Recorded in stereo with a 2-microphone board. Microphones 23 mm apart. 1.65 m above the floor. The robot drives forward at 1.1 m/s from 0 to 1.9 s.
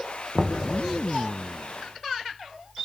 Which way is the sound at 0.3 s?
5° right (ahead or behind).